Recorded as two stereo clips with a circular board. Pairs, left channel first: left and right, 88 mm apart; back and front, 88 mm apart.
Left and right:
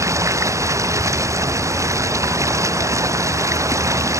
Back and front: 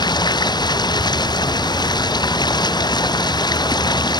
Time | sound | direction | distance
0.0 | running water | 145° right | ?